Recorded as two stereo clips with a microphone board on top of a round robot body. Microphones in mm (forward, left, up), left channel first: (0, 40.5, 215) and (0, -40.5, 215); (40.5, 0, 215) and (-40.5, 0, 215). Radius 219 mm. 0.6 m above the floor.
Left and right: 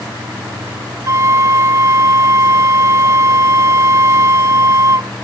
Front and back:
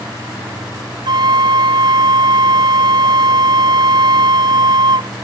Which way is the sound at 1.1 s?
145° right.